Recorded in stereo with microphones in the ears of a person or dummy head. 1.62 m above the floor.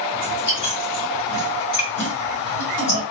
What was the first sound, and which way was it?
Chewing, 35° left (ahead or behind).